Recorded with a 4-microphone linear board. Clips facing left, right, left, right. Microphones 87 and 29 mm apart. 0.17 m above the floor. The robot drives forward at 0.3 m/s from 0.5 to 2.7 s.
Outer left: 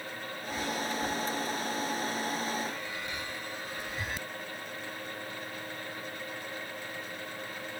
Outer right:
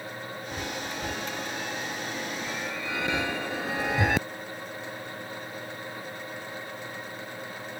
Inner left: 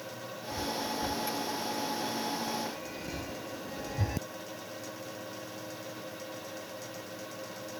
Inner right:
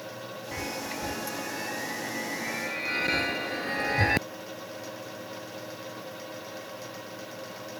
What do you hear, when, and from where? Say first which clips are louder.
0.5 s a chime: outer left 3 dB, inner left 1 dB; 55° right (ahead or behind); by 4.3 s 70° right (ahead or behind)